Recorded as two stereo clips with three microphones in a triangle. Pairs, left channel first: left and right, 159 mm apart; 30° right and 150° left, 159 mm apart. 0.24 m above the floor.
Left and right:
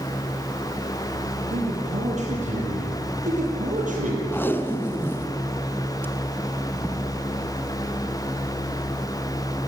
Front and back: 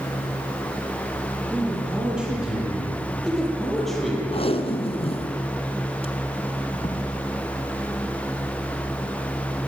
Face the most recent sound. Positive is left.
turn(degrees=15)